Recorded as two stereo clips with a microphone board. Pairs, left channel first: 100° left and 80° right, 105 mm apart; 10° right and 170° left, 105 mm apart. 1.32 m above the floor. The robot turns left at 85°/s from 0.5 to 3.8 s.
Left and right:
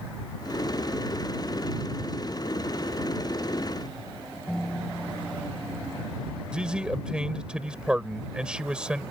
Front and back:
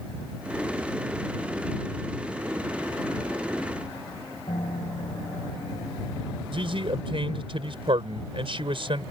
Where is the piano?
5° left.